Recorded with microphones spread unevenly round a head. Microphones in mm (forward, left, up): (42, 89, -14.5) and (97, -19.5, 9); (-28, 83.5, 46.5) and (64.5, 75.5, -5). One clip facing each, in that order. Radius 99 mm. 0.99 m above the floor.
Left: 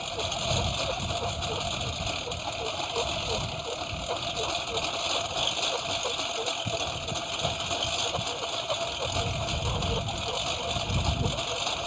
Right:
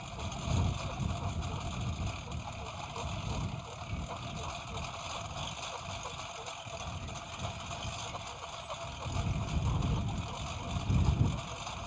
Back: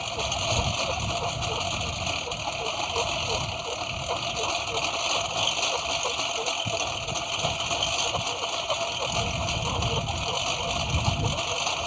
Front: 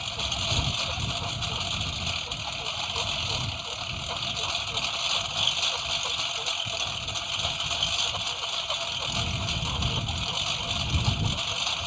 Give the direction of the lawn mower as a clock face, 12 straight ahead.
7 o'clock.